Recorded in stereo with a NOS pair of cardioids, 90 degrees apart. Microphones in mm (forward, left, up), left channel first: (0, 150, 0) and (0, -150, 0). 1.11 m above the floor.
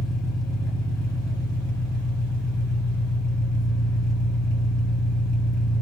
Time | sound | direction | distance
0.0 | an engine running | 10° left | 2.5 m